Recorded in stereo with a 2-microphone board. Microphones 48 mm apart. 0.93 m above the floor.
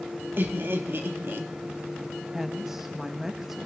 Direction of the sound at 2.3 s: 10° right (ahead or behind).